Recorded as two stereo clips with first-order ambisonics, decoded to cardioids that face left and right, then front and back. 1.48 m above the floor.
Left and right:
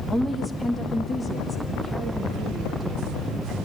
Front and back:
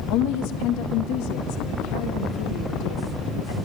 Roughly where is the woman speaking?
Ahead.